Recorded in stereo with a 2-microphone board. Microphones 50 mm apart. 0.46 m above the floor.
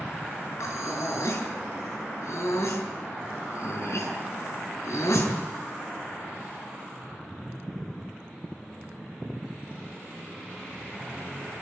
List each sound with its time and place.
0.6 s breathing: 75° left (ahead or behind), 6.5 m